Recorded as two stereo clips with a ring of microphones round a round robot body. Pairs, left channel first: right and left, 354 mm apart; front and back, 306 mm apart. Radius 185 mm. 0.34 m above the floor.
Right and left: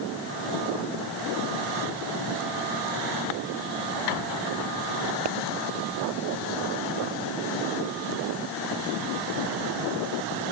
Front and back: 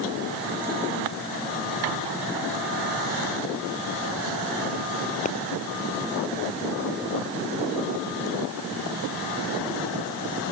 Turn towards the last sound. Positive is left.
turn(degrees=65)